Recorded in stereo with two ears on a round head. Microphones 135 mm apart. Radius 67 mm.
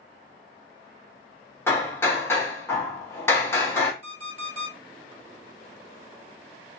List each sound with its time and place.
1.7 s hammering: 15° left (ahead or behind), 0.7 m
4.0 s an alarm clock: 70° left (ahead or behind), 1.7 m